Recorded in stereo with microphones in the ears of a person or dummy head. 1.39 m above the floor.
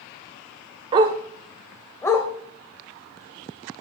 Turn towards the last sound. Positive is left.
turn(degrees=20)  # may be behind; listen again after turning